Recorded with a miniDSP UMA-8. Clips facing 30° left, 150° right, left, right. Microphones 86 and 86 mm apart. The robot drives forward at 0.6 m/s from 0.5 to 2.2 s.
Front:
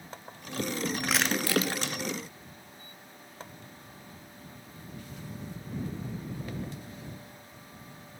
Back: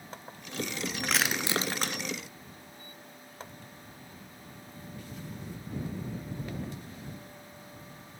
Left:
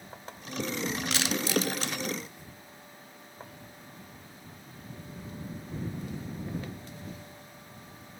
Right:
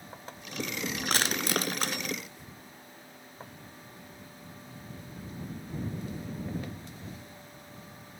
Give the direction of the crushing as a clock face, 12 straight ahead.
2 o'clock.